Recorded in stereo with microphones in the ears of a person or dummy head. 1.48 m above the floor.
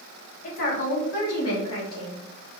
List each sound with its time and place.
0.4 s a woman speaking: 30° left (ahead or behind), 0.7 m; by 2.2 s 70° left (ahead or behind), 1.3 m